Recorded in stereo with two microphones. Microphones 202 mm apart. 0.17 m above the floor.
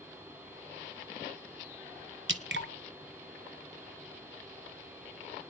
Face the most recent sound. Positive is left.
turn(degrees=-65)  # may be behind; listen again after turning